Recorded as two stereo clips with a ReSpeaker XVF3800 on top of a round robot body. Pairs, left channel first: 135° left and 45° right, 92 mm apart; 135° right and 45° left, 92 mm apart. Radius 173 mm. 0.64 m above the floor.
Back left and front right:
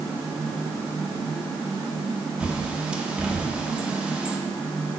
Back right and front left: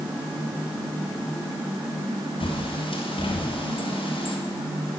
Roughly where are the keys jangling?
No keys jangling in this recording.